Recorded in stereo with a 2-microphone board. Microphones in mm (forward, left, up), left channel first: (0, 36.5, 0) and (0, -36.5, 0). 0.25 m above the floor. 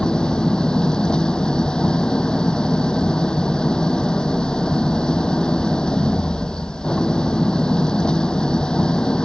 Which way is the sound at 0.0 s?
10° left (ahead or behind).